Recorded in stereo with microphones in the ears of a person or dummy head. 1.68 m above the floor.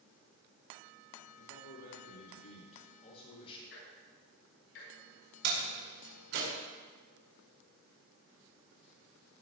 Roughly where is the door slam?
Right.